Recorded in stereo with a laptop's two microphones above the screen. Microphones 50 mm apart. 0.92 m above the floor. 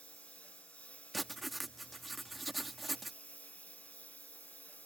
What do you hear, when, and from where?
0.0 s a lawn mower: 30° left (ahead or behind); by 4.9 s 35° left (ahead or behind)
1.1 s writing: centre (ahead or behind)